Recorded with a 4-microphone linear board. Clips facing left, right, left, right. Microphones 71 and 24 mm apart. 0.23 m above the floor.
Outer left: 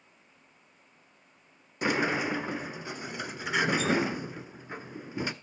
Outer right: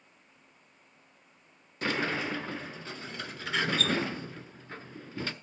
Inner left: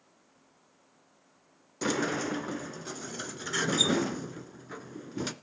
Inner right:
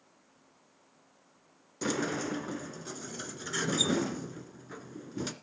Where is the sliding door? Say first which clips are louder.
Outer left 3 dB, inner left 2 dB; 15° left (ahead or behind), 0.7 m.